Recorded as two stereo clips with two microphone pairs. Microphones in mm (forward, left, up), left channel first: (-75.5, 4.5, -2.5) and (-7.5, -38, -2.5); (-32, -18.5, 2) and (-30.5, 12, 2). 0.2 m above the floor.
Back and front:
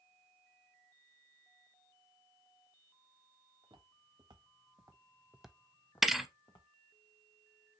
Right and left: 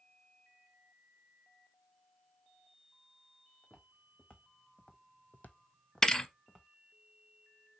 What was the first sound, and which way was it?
Footsteps, 45° right.